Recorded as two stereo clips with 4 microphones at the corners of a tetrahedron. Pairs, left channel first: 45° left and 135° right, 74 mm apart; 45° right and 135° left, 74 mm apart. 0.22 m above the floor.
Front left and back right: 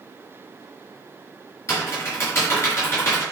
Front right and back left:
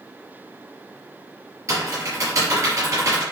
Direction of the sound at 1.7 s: 95° left.